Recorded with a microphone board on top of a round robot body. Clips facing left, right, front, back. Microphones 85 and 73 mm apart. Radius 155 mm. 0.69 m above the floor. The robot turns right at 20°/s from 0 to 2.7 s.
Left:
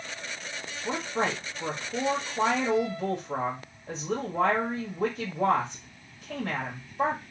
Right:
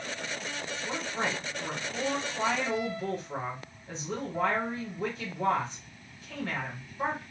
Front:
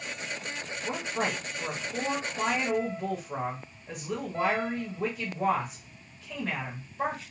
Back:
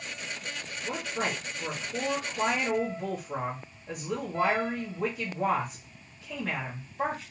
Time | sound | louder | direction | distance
0.8 | a woman speaking | left 5 dB, front 1 dB | 70° left | 1.4 m